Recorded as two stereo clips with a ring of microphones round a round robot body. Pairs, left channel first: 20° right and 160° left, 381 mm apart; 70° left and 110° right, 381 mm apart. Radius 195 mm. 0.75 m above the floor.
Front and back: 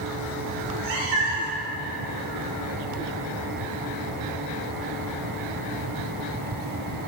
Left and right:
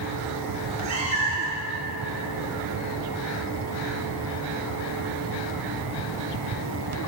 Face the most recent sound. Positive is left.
turn(degrees=175)